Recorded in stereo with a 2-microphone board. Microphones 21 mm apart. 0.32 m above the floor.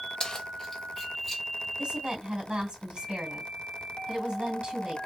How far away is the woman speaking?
About 1.9 m.